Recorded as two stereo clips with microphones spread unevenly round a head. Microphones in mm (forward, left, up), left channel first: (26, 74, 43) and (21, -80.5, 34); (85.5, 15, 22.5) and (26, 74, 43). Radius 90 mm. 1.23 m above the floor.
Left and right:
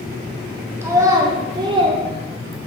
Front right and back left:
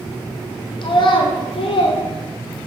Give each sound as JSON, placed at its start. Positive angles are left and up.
{"t": 0.8, "sound": "a child speaking", "azimuth_deg": -20, "distance_m": 1.6}